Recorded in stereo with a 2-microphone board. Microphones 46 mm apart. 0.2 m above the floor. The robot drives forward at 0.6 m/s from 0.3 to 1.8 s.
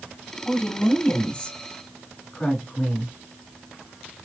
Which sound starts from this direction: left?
A woman speaking, at 0.5 s.